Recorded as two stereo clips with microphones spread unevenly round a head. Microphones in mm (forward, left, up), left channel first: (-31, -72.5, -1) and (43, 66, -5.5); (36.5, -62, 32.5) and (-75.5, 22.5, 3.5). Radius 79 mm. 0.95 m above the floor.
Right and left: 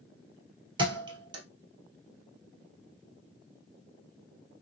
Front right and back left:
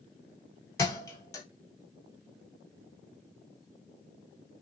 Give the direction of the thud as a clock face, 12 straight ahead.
12 o'clock.